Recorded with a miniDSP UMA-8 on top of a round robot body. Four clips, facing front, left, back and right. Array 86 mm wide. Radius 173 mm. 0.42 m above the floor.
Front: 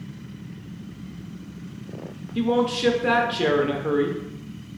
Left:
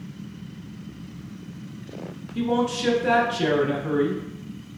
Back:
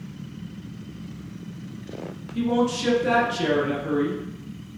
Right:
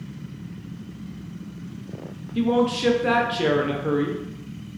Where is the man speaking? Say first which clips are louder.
Right 3 dB, front 1 dB; 35° right, 0.8 m.